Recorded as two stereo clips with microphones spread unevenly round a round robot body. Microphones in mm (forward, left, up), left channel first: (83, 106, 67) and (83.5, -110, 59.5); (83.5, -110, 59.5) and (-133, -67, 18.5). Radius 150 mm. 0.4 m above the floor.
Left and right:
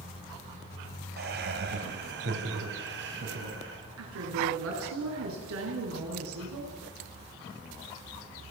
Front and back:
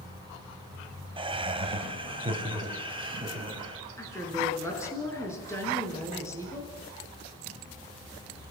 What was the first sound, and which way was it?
Laughter, 130° right.